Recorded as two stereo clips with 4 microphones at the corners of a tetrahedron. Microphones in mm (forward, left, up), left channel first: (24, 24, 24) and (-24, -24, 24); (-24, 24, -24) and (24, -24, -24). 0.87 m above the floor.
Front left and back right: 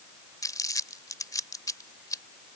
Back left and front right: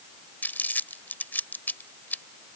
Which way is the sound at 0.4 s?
70° left.